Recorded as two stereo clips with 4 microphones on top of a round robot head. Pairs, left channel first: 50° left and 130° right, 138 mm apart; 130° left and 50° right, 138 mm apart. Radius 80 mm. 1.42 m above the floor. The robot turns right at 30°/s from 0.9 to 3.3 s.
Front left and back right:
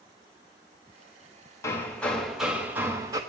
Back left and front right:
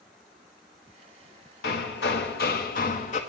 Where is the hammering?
120° left, 1.2 m; by 3.2 s 170° left, 1.2 m.